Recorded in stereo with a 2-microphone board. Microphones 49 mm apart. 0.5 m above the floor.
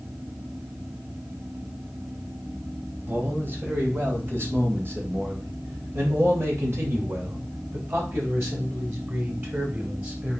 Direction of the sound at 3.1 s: 45° right (ahead or behind).